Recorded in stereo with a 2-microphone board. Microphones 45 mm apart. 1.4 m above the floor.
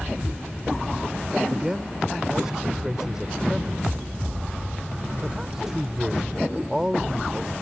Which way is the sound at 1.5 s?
10° right (ahead or behind).